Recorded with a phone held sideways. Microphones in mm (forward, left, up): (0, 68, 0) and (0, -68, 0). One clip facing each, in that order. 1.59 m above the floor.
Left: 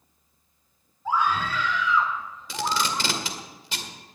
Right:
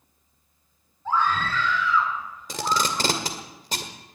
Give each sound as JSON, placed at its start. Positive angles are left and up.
{"t": 1.1, "sound": "a scream", "side_deg": 10, "distance_m": 4.0}
{"t": 2.5, "sound": "tape being pulled", "side_deg": -40, "distance_m": 1.9}